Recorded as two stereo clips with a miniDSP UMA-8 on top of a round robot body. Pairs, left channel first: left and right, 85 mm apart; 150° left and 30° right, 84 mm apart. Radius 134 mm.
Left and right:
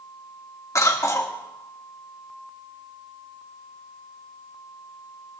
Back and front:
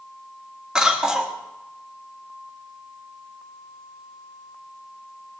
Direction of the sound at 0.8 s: 50° left.